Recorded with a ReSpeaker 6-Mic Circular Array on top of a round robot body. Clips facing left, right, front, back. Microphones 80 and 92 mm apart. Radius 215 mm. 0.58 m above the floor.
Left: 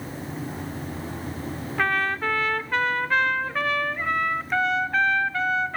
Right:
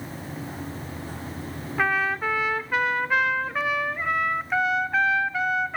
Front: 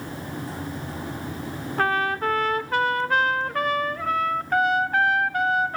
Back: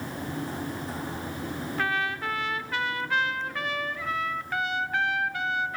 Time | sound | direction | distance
1.8 | a trumpet | 10° right | 1.1 m